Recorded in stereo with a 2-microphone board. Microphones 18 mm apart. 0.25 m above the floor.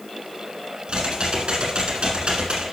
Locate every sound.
0.9 s typing on a keyboard: 85° right, 2.0 m